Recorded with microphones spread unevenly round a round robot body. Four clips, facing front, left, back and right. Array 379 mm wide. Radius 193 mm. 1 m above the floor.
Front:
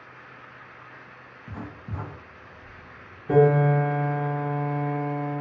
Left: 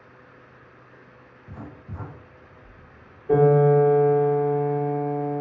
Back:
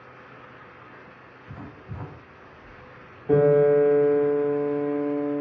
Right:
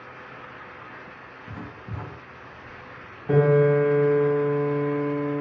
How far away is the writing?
About 1.1 m.